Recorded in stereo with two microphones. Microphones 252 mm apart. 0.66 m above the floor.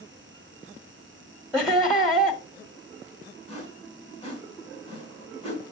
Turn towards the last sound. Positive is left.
turn(degrees=25)  # may be behind; listen again after turning